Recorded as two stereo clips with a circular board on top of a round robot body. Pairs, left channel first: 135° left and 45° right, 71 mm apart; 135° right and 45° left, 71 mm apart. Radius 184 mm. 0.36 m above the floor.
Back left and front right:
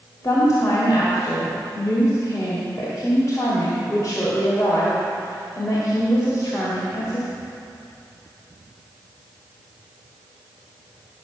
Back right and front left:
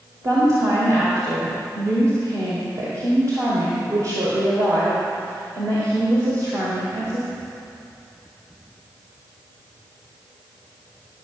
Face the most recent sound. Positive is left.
turn(degrees=85)